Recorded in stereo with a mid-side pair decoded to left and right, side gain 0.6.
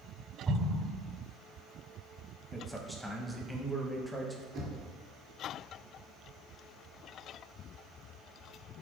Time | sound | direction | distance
0.5 | an explosion | 35° right | 1.8 m
2.5 | a man speaking | straight ahead | 0.8 m
4.5 | knocking | 60° right | 1.6 m